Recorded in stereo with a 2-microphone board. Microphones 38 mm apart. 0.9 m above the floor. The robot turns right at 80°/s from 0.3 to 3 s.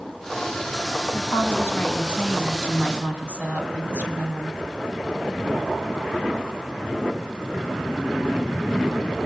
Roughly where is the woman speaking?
Left.